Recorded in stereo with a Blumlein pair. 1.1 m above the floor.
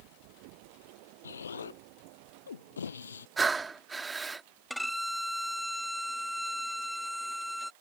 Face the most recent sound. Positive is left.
turn(degrees=0)